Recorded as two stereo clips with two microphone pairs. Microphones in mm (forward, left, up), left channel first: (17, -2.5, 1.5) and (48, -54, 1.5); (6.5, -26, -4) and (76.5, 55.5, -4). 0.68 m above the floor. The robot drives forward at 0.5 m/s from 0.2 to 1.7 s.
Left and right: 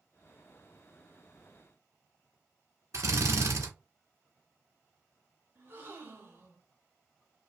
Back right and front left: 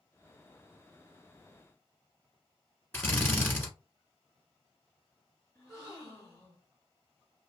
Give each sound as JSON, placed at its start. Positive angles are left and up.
{"t": 2.9, "sound": "a drill", "azimuth_deg": -60, "distance_m": 1.1}
{"t": 5.5, "sound": "a gasp", "azimuth_deg": -85, "distance_m": 1.4}